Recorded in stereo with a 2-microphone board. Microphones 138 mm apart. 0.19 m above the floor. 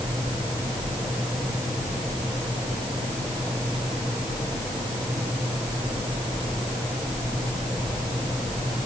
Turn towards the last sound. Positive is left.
No sound to turn to.